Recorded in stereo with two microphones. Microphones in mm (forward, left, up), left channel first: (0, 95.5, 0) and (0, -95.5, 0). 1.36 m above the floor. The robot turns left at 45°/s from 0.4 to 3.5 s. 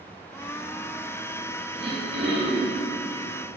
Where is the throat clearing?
90° right, 6.5 m; by 2.8 s 140° right, 6.5 m.